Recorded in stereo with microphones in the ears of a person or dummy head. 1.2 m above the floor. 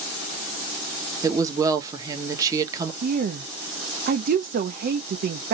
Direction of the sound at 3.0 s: 50° right (ahead or behind).